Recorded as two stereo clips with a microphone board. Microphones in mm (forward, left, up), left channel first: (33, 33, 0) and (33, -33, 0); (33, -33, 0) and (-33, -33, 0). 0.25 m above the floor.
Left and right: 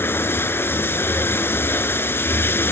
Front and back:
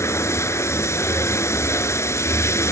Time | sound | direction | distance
0.0 | running water | 40° left | 1.0 m